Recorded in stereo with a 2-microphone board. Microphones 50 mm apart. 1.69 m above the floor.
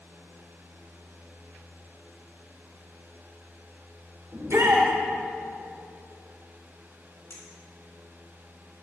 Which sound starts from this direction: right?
A shout, at 4.3 s.